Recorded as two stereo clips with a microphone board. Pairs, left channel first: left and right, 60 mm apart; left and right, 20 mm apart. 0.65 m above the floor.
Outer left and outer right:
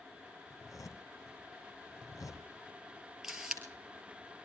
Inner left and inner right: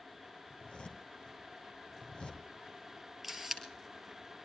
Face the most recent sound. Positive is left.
turn(degrees=-10)  # may be behind; listen again after turning